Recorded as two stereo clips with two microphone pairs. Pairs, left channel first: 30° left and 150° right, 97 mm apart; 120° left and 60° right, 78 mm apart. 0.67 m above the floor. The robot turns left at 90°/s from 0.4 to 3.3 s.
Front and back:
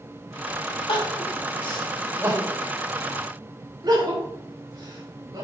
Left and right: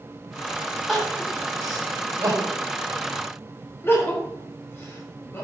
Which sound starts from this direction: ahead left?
Crying, at 0.9 s.